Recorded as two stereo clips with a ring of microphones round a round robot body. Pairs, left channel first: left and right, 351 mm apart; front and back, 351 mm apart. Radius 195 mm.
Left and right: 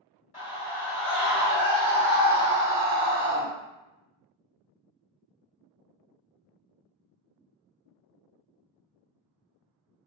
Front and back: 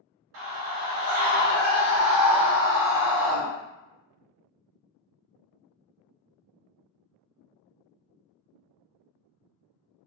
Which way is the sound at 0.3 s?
150° left.